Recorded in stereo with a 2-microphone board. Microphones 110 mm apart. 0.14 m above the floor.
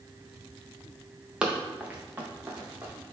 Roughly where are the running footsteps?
Centre.